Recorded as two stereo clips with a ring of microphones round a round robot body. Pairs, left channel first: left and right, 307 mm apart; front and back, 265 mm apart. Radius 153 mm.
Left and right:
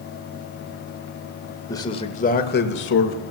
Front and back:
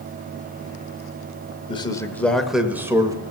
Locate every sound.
1.7 s a man speaking: 30° left, 1.1 m; by 3.2 s 110° left, 1.4 m